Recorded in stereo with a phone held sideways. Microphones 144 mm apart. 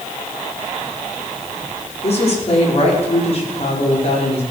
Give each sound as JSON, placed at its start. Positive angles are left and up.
{"t": 2.0, "sound": "a woman speaking", "side_deg": 45, "distance_m": 5.0}